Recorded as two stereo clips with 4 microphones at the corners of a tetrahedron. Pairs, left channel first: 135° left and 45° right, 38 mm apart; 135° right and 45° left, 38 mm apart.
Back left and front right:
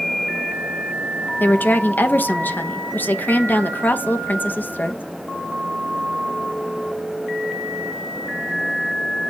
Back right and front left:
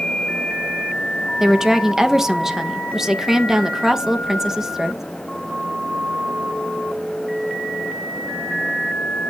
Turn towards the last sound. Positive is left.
turn(degrees=120)